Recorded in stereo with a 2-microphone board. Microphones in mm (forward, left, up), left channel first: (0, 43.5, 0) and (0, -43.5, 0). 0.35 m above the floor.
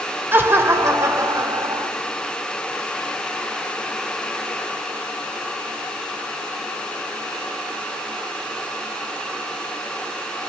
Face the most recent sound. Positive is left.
turn(degrees=-45)  # may be behind; listen again after turning